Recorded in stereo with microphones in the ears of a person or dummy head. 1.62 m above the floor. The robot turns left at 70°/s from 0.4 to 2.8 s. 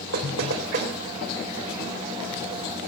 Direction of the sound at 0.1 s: 75° right (ahead or behind).